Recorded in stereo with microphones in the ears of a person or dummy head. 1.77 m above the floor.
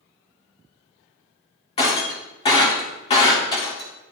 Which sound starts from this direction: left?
Breaking glass, at 1.8 s.